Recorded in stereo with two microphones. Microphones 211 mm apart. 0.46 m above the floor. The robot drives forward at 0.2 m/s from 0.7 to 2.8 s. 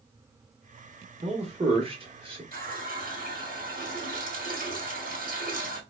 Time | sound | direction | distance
1.2 | a man speaking | 30° right (ahead or behind) | 0.9 m
2.5 | a running tap | 45° right (ahead or behind) | 0.9 m